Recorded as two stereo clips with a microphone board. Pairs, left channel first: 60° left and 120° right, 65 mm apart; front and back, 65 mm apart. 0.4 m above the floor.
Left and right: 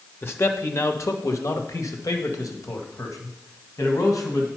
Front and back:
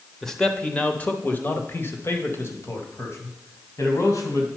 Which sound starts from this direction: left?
A man speaking, at 0.2 s.